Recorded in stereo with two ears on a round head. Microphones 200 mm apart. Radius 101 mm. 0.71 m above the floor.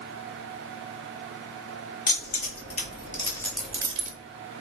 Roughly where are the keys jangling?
Left.